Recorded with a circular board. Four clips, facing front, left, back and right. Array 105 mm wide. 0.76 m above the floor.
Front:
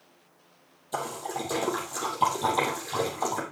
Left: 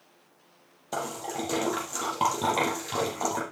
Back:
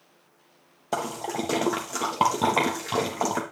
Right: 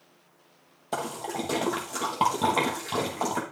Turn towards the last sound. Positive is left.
turn(degrees=-170)